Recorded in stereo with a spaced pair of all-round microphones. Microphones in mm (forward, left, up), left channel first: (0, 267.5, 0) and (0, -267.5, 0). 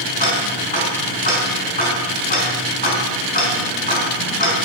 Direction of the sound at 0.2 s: 55° left (ahead or behind).